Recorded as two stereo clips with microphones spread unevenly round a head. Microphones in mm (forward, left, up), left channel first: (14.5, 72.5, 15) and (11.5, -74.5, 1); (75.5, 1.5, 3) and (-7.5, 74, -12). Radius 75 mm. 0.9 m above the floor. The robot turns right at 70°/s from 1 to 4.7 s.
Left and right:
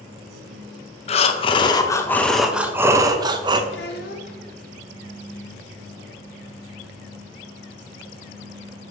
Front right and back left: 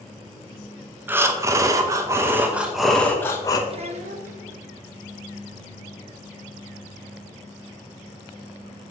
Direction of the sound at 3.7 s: 100° left.